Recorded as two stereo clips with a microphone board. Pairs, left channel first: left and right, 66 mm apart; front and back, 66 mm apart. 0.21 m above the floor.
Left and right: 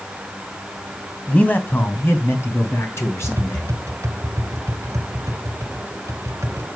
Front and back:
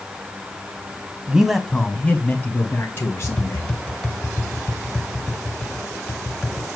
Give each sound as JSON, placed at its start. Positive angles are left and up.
{"t": 1.3, "sound": "a man speaking", "azimuth_deg": 130, "distance_m": 1.1}
{"t": 3.2, "sound": "tapping", "azimuth_deg": -75, "distance_m": 1.4}